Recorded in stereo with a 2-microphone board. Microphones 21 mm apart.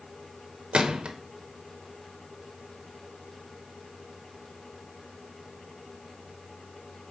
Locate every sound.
0.7 s a gunshot: 70° right (ahead or behind), 1.0 m